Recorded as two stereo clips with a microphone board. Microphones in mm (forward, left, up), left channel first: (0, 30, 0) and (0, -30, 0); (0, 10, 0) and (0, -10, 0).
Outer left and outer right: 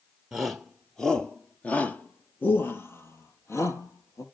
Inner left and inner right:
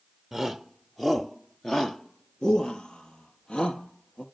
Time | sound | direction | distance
0.3 | a shout | 5° right (ahead or behind) | 2.5 m